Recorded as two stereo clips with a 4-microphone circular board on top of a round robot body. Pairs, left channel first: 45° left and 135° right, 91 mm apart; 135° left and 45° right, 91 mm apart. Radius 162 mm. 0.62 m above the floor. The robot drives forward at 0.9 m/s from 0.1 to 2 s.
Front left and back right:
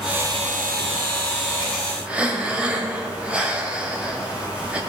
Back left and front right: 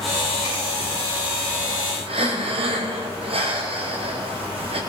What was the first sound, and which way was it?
Breathing, 60° right.